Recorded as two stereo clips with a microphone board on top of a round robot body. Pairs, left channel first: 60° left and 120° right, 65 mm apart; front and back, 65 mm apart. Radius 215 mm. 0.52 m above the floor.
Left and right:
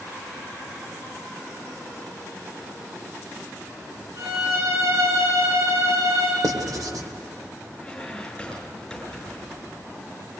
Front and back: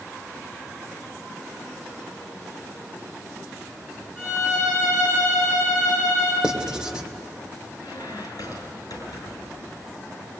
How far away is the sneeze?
No sneeze in this recording.